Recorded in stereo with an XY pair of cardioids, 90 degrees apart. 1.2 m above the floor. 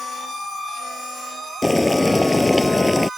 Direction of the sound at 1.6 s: 20° left.